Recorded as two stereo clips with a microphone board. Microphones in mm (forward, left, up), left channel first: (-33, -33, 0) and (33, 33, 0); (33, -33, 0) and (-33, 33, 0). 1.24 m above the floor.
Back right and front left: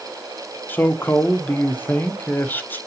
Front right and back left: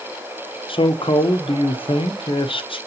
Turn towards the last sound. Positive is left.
turn(degrees=-65)